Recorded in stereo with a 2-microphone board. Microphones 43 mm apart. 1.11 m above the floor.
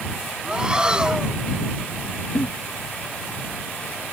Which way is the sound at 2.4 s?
60° left (ahead or behind).